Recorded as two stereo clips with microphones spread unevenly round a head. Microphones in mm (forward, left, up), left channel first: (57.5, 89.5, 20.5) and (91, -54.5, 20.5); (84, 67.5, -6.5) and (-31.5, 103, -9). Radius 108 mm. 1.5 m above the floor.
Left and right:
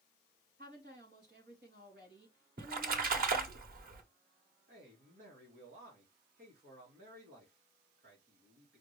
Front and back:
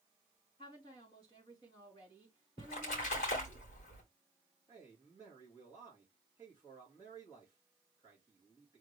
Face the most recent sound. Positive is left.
turn(degrees=-120)